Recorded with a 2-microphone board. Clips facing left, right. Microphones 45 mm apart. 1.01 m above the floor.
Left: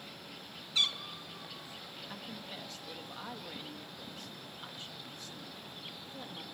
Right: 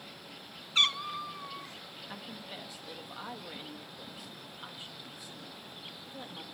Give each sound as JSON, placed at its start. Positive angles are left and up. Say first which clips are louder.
{"t": 0.8, "sound": "a cat meowing", "louder": "right 5 dB", "side_deg": -40, "distance_m": 0.6}
{"t": 2.1, "sound": "a woman speaking", "louder": "right 2 dB", "side_deg": -10, "distance_m": 1.6}